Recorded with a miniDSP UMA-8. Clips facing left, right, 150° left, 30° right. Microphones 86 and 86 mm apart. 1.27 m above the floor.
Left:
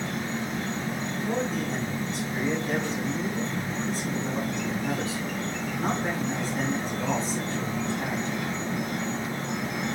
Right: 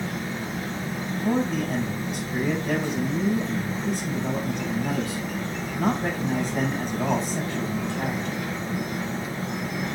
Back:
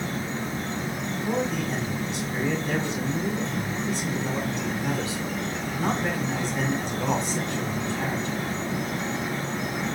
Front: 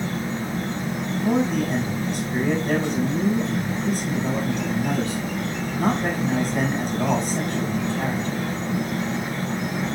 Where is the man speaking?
65° right, 6 m.